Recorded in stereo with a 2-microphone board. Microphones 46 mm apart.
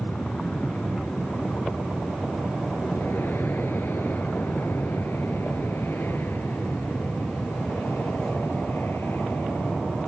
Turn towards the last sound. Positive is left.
turn(degrees=60)  # may be behind; listen again after turning